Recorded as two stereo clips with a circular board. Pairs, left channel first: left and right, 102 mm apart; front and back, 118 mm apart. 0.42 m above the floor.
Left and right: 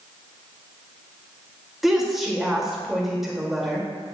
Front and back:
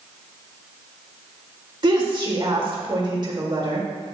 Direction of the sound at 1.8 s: 175° right.